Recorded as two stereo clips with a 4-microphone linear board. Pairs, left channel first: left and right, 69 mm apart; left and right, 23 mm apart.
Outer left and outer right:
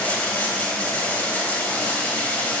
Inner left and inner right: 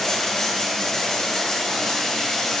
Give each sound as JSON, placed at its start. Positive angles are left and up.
{"t": 0.0, "sound": "running water", "side_deg": 25, "distance_m": 1.0}